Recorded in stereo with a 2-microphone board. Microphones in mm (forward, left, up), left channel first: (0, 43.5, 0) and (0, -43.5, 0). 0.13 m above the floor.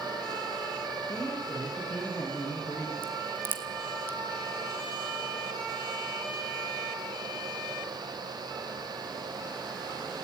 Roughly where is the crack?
Right.